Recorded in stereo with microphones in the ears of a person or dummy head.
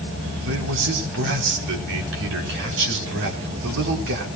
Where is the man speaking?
60° right (ahead or behind), 4.5 m.